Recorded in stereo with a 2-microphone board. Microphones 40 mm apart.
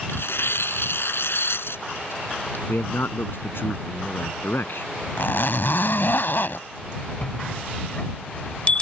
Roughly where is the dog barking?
No dog barking in this recording.